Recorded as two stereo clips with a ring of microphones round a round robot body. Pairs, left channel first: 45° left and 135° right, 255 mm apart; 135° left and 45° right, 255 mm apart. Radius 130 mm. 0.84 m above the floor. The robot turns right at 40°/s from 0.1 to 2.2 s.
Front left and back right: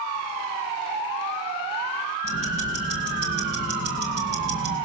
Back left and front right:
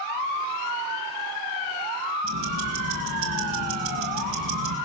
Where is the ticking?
85° right, 4 m.